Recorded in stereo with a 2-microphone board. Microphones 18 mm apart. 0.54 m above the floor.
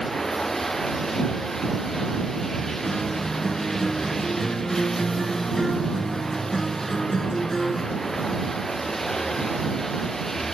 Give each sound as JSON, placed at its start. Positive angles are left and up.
{"t": 0.0, "sound": "running water", "side_deg": 20}
{"t": 2.9, "sound": "a guitar", "side_deg": 20}